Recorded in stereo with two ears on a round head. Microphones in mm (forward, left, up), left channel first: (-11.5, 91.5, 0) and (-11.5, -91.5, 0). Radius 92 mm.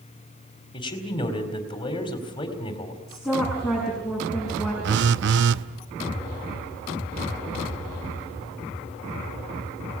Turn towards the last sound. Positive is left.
turn(degrees=-60)  # may be behind; listen again after turning